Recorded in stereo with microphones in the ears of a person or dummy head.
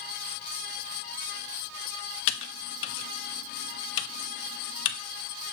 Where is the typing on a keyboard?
65° left (ahead or behind), 0.7 m.